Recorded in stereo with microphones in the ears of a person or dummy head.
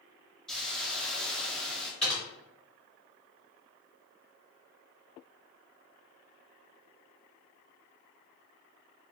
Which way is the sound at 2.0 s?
Centre (ahead or behind).